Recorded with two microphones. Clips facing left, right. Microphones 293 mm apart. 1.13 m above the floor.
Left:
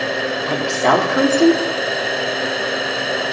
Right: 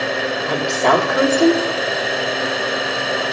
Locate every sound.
0.5 s a woman speaking: 25° left (ahead or behind), 3 m